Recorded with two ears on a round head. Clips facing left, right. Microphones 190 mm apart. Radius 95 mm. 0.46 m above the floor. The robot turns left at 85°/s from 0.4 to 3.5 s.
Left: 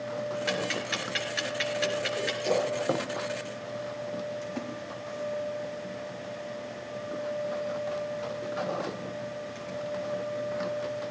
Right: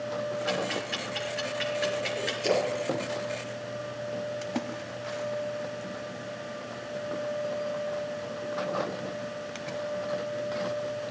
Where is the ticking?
25° left (ahead or behind), 3 m; by 2.3 s 5° right (ahead or behind), 3 m.